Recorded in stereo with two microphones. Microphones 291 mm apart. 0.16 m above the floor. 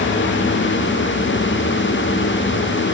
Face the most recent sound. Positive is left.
No sound to turn to.